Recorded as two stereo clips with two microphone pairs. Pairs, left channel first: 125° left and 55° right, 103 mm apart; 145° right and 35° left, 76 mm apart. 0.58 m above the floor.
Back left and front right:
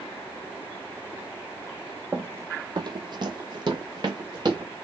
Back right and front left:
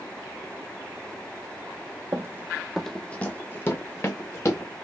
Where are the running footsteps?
15° left, 0.7 m; by 4.7 s 100° right, 2 m.